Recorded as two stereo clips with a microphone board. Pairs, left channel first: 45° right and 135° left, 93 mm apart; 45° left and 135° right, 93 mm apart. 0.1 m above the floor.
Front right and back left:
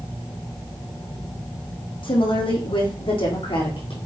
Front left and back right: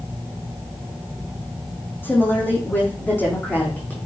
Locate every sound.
2.0 s a woman speaking: 20° right, 5 m; by 4.0 s 25° right, 6 m